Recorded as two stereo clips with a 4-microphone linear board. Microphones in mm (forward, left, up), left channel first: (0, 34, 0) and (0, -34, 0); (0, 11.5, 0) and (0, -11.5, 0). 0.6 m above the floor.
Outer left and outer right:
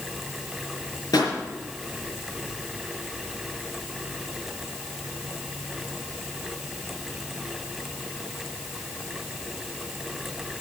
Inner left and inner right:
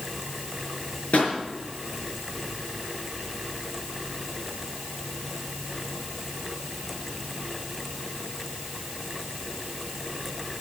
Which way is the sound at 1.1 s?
75° left (ahead or behind).